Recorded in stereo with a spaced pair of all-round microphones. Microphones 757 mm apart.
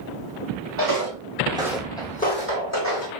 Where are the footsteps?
30° right (ahead or behind), 1.5 m; by 3.1 s 25° left (ahead or behind), 2 m.